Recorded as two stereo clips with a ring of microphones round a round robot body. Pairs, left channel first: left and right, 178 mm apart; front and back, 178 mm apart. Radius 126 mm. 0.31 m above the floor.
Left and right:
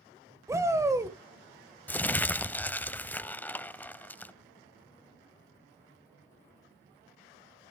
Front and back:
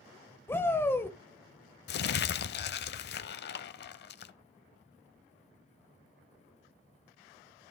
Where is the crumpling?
10° left, 0.6 m.